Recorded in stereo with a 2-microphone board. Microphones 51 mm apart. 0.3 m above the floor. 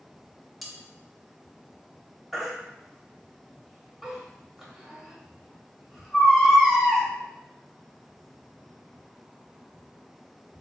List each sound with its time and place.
0.6 s cutlery clinking: centre (ahead or behind), 0.6 m
2.3 s a baby crying: 5° right (ahead or behind), 0.8 m